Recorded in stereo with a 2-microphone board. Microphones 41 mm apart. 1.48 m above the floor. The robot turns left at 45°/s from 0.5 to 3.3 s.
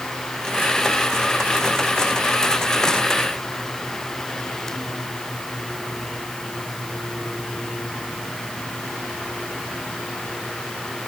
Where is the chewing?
I don't hear chewing.